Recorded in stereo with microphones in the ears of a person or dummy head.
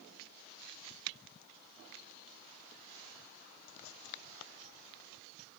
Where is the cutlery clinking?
I don't hear cutlery clinking.